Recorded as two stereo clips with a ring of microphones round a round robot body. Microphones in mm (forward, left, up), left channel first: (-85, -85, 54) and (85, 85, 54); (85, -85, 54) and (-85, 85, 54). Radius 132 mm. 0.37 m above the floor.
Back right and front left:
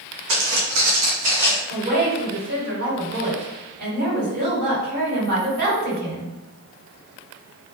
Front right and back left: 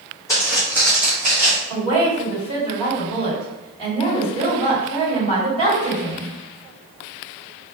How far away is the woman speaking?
About 1.9 m.